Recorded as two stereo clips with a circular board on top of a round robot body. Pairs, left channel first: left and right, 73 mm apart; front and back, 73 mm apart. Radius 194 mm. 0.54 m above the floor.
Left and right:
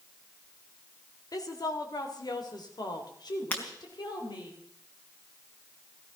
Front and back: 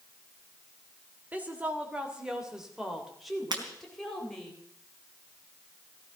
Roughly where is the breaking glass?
Behind left.